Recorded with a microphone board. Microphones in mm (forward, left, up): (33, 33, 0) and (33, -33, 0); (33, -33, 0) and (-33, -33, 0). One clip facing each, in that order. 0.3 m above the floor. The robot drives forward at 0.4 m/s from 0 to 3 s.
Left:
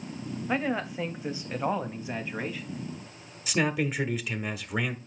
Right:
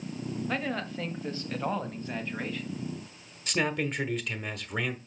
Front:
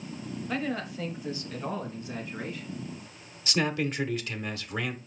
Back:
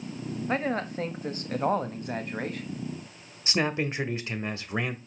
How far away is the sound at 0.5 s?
About 1.1 m.